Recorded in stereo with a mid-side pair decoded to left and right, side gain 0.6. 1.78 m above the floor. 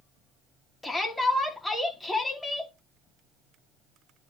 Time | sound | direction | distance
0.8 | a shout | 10° left | 4 m